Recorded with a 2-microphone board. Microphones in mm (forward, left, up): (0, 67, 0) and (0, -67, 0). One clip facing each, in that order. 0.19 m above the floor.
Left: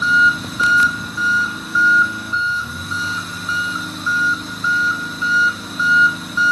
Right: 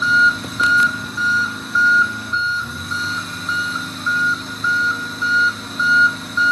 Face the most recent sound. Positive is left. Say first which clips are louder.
# left 1 dB
turn(degrees=5)  # may be behind; listen again after turning